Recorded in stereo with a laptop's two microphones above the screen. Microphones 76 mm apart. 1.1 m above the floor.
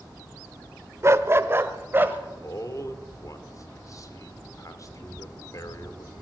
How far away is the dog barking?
About 1.2 m.